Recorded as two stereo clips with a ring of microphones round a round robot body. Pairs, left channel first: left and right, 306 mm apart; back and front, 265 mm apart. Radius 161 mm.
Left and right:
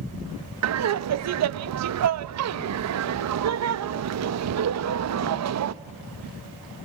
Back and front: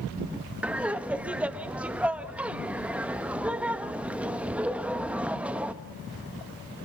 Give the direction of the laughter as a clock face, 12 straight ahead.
3 o'clock.